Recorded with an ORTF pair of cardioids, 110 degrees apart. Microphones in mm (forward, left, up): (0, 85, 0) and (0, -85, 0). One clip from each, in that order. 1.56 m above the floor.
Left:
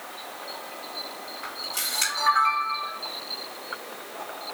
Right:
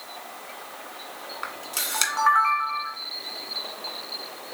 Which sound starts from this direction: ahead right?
A camera shutter, at 1.4 s.